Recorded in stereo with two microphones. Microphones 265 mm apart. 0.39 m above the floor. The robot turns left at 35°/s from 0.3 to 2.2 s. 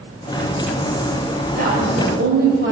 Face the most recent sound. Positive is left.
turn(degrees=-45)  # may be behind; listen again after turning